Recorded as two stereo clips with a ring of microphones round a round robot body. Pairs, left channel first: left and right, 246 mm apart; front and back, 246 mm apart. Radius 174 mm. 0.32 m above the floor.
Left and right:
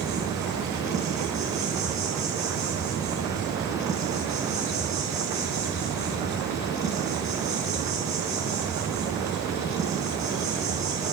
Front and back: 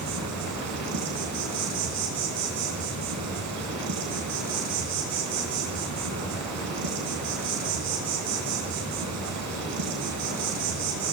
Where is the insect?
170° right, 4 m.